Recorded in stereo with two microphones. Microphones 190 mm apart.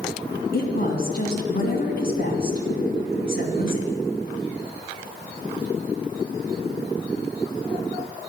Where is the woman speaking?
55° left (ahead or behind), 2.5 m.